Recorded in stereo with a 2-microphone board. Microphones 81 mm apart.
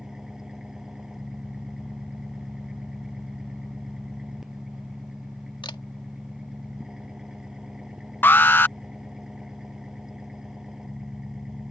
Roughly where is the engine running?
Centre.